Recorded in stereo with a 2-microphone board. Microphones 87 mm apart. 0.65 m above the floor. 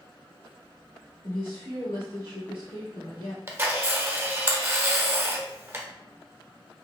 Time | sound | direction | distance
1.2 | a woman speaking | 70° left (ahead or behind) | 1.3 m
3.5 | a camera shutter | 25° right (ahead or behind) | 0.7 m